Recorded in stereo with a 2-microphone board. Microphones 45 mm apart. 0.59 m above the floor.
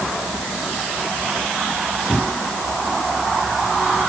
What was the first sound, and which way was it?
Only background noise.